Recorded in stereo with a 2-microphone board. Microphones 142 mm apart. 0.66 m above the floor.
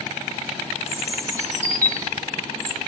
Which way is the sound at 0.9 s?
20° right (ahead or behind).